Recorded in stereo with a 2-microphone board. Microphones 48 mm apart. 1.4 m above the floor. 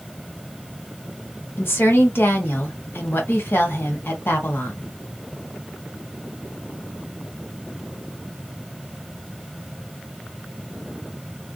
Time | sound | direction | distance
1.6 | a woman speaking | 50° left (ahead or behind) | 1.0 m